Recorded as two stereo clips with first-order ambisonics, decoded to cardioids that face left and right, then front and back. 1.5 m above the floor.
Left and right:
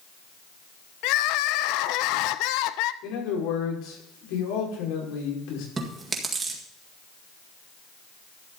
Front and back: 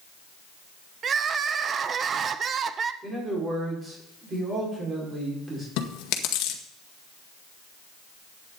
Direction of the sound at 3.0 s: 110° left.